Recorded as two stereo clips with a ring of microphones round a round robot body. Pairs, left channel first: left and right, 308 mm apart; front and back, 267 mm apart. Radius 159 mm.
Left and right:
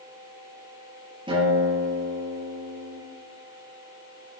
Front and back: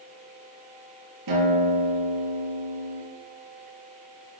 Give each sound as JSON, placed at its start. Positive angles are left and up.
{"t": 1.3, "sound": "a guitar", "azimuth_deg": -165, "distance_m": 5.5}